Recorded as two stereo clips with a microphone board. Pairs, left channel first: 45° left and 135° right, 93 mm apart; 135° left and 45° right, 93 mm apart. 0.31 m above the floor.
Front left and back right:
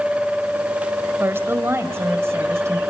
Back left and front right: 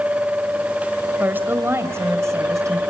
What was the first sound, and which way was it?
A woman speaking, 95° right.